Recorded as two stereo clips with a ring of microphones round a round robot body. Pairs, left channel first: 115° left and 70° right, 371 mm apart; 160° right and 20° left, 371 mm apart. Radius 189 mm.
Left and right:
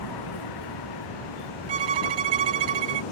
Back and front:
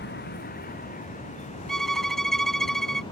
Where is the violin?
70° right.